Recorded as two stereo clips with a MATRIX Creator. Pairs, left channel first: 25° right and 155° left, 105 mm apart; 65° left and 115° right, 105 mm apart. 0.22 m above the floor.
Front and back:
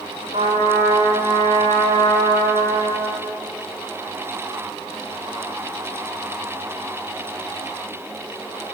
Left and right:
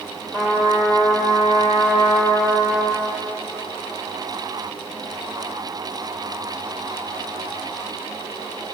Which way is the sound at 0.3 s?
170° left.